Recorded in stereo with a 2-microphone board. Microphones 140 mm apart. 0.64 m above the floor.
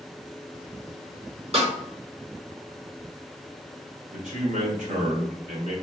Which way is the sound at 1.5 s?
50° right (ahead or behind).